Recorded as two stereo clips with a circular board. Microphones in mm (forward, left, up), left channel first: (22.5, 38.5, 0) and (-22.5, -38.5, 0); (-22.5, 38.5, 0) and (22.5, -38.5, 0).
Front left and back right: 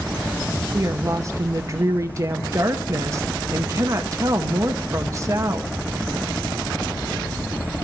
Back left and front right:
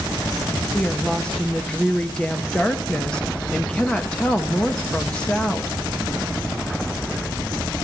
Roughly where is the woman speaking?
Behind.